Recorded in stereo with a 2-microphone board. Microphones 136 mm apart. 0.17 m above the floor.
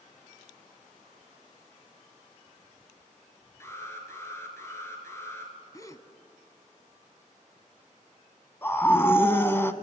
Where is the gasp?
25° left (ahead or behind), 1.1 m.